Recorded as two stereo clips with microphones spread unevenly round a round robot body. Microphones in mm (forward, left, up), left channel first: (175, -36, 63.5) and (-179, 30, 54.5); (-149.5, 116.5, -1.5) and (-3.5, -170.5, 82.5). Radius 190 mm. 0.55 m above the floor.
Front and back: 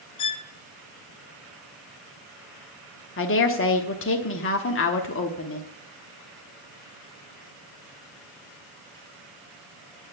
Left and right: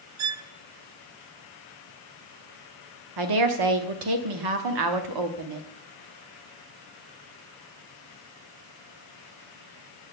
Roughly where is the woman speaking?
Ahead right.